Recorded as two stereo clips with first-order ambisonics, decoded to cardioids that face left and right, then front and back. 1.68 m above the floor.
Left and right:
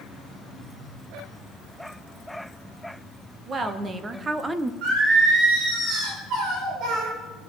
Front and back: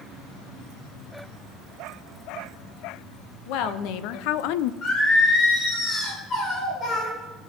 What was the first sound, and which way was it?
A woman speaking, 25° right.